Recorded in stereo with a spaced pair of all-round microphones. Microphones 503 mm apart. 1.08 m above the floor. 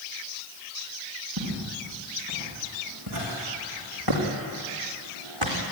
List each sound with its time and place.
1.4 s footsteps: 35° right (ahead or behind), 9 m; by 5.6 s 60° right (ahead or behind), 4 m